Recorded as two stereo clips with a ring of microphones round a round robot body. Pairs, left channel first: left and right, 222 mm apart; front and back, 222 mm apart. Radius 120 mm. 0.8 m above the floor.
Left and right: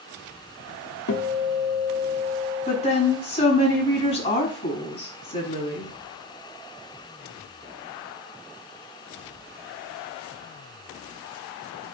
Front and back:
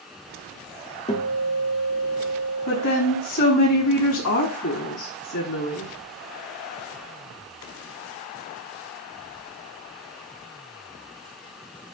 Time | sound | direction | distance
1.1 | a guitar | 65° left | 1.5 m
2.7 | a woman speaking | 30° left | 5 m